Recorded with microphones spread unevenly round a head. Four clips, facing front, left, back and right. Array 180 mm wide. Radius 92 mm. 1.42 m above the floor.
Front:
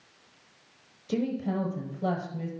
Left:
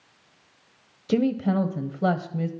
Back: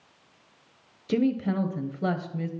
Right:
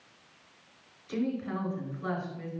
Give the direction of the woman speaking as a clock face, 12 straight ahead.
8 o'clock.